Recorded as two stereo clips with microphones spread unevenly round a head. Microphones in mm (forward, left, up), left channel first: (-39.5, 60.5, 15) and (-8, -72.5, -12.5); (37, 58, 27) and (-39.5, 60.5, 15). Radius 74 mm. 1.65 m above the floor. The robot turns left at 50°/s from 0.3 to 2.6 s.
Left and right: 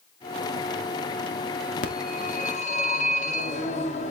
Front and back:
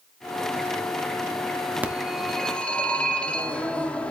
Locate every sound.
1.8 s a phone ringing: 105° left, 2 m; by 4.1 s 70° left, 2 m